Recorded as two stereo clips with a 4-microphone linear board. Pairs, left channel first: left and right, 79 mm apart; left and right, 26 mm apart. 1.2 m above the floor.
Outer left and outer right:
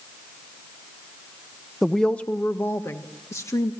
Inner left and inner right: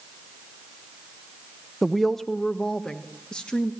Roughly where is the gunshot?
I don't hear a gunshot.